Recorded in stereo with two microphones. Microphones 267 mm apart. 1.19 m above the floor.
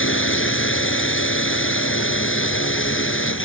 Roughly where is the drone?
Left.